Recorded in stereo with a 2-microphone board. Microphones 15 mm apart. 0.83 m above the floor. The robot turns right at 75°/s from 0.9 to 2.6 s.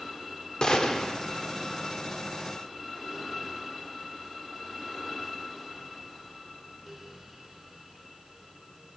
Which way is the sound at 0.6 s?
45° left (ahead or behind).